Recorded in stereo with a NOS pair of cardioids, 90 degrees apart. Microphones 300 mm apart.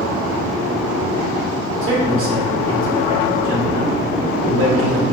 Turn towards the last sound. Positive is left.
turn(degrees=-45)